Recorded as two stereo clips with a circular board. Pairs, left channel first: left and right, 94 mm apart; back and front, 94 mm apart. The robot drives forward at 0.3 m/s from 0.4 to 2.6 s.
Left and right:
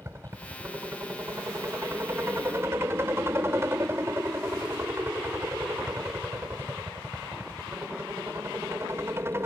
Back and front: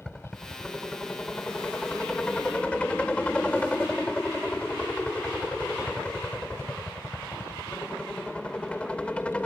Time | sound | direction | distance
0.0 | a helicopter | 105° right | ?